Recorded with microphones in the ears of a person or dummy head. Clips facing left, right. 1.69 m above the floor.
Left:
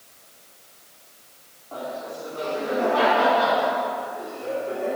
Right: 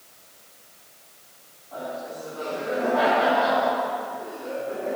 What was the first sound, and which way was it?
Laughter, 90° left.